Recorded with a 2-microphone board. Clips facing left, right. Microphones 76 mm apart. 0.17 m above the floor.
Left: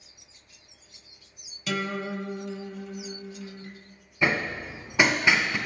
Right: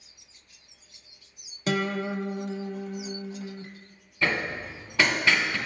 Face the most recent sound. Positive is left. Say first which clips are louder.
# left 2 dB
turn(degrees=20)  # may be behind; listen again after turning